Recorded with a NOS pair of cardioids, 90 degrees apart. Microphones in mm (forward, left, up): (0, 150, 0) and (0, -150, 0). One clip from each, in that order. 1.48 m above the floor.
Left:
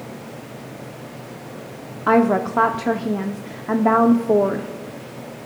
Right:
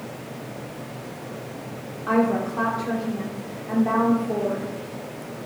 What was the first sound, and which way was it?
A woman speaking, 60° left.